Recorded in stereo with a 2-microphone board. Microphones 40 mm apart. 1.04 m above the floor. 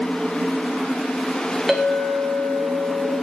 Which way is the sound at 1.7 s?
5° right (ahead or behind).